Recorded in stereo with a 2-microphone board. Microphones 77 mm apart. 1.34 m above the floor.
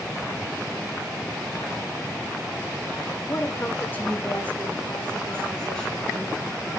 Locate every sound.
3.3 s a woman speaking: 45° left (ahead or behind), 0.8 m; by 6.7 s 10° left (ahead or behind), 5 m